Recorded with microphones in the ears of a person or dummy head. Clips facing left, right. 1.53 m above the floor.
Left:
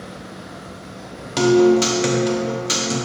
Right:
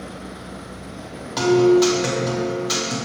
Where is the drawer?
I don't hear a drawer.